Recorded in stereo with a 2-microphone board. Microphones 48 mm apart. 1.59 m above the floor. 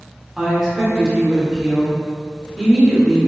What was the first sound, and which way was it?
A woman speaking, 5° right (ahead or behind).